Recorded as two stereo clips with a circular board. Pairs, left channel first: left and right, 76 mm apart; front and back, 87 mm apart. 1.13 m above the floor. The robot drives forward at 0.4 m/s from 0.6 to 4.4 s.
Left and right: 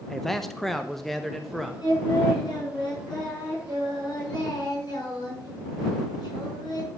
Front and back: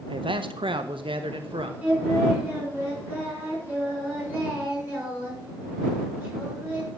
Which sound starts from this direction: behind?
A man speaking, at 0.1 s.